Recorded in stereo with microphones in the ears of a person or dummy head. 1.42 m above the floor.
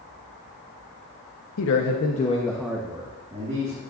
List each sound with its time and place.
1.6 s a man speaking: 75° left (ahead or behind), 1.1 m; by 3.8 s 30° right (ahead or behind), 2.5 m